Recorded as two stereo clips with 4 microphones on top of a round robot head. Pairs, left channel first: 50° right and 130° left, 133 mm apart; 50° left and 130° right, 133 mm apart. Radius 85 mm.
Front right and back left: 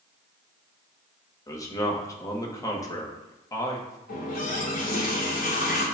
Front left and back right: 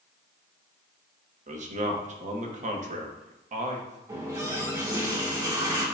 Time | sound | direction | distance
1.5 | a man speaking | 110° right | 1.0 m
4.1 | a running tap | 65° right | 1.4 m